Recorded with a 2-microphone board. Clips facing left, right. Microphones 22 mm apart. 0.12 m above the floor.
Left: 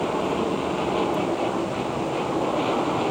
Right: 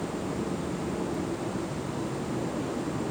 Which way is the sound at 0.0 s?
65° left (ahead or behind).